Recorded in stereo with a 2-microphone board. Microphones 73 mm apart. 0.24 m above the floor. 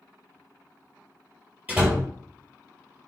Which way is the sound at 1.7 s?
25° right (ahead or behind).